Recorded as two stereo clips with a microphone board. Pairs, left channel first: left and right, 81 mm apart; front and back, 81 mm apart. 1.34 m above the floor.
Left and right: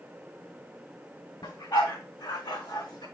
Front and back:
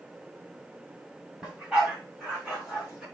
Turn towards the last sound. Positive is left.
turn(degrees=100)